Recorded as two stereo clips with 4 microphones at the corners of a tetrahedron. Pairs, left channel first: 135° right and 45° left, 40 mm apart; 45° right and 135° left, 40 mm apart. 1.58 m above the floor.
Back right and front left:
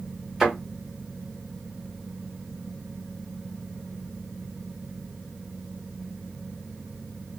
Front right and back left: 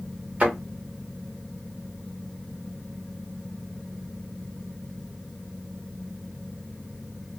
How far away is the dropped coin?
I don't hear a dropped coin.